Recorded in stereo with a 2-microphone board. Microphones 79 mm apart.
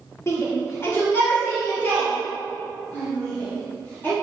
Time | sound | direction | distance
0.3 | a shout | 40° left (ahead or behind) | 1.8 m